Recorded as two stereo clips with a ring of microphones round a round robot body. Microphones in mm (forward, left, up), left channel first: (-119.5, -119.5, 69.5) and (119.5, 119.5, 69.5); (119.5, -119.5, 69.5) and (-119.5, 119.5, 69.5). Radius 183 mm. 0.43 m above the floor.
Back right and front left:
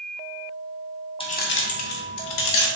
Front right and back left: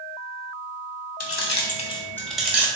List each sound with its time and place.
1.2 s keys jangling: 65° right, 0.7 m; by 2.7 s 140° right, 1.2 m